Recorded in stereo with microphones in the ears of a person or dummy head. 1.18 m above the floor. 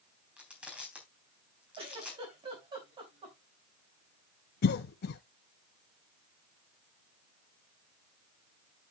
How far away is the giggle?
About 4 m.